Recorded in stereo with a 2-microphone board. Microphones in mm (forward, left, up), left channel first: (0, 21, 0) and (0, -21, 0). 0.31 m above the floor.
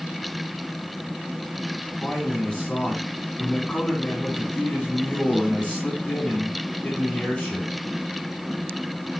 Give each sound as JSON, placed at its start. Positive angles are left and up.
{"t": 2.0, "sound": "a man speaking", "side_deg": 25, "distance_m": 3.0}